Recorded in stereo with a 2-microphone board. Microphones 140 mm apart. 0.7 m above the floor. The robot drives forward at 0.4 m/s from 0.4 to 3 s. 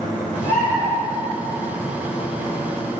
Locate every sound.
0.4 s a bird: 60° left (ahead or behind), 0.8 m; by 0.8 s 55° left (ahead or behind), 0.8 m